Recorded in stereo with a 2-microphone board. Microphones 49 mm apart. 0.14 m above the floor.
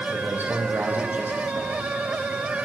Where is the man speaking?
40° right (ahead or behind), 5.5 m; by 1.9 s 45° right (ahead or behind), 7 m.